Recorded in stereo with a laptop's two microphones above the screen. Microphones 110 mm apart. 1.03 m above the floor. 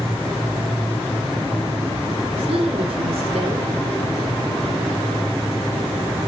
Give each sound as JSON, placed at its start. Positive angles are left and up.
{"t": 2.4, "sound": "a woman speaking", "side_deg": -70, "distance_m": 4.0}